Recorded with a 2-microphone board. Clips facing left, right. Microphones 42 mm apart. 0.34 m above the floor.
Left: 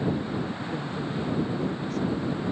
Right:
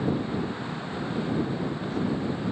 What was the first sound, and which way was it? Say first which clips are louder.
A woman speaking: left 1 dB; 60° left (ahead or behind).